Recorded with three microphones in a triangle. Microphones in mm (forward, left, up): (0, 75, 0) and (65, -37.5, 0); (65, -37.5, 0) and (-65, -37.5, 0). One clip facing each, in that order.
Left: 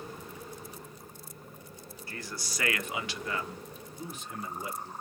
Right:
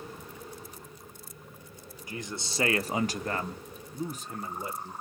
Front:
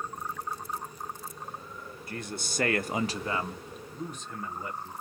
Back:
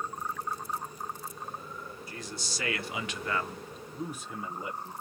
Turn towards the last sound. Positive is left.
turn(degrees=-110)